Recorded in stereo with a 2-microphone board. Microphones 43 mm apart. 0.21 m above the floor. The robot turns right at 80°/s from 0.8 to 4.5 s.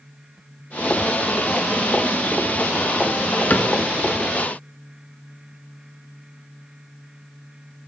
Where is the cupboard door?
35° left (ahead or behind), 0.9 m; by 3.7 s 50° left (ahead or behind), 0.9 m.